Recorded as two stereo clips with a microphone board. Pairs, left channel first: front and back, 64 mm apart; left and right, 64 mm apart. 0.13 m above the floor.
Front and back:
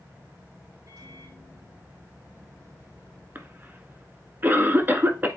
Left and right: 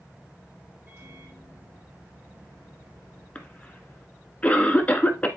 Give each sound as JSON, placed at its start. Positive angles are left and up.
{"t": 0.9, "sound": "a microwave", "azimuth_deg": -140, "distance_m": 5.0}
{"t": 3.4, "sound": "a cough", "azimuth_deg": 145, "distance_m": 1.5}